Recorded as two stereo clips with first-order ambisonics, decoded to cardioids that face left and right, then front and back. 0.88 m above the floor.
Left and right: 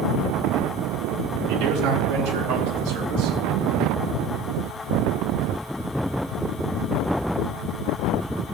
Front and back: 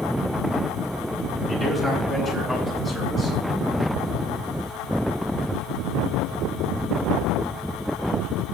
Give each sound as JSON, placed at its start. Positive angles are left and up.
{"t": 1.5, "sound": "a man speaking", "azimuth_deg": -105, "distance_m": 4.5}